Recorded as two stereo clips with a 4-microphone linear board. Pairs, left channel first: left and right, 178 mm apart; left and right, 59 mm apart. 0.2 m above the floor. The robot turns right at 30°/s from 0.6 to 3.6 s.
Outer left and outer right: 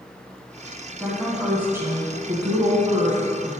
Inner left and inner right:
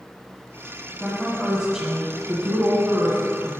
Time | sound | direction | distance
1.0 | a woman speaking | straight behind | 1.5 m